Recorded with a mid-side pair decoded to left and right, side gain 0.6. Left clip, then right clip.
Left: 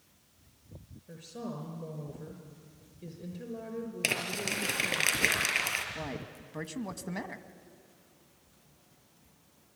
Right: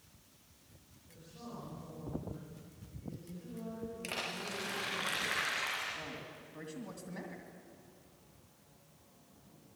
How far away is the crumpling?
About 5.5 m.